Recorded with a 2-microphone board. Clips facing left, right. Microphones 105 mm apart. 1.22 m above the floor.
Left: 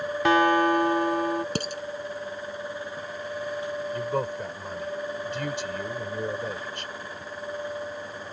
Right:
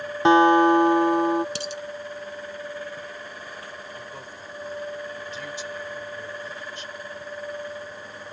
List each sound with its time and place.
0.2 s a guitar: 25° right (ahead or behind)
1.6 s dishes clattering: 45° left (ahead or behind)
3.9 s a man speaking: 60° left (ahead or behind)